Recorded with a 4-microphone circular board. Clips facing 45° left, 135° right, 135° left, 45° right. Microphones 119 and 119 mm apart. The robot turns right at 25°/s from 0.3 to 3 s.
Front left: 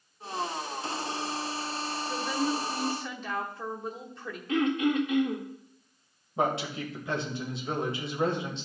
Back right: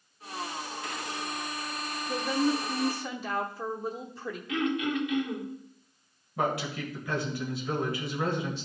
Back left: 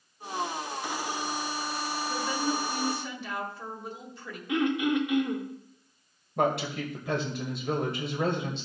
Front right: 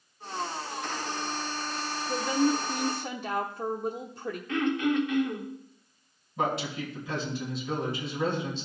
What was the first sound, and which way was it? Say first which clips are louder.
A woman speaking: back right 3 dB, front right 6 dB; 75° right.